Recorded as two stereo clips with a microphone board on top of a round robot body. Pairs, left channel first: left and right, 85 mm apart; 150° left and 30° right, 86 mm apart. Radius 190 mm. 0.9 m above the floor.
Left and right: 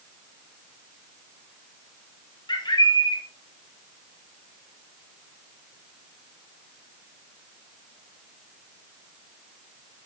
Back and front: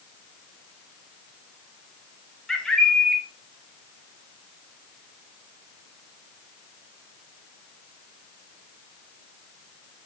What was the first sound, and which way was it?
A bird, 65° left.